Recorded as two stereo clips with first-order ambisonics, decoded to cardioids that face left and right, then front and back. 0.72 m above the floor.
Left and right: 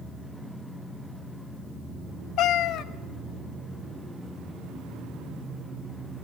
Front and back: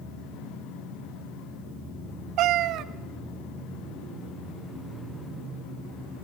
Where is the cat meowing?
135° left, 0.6 m.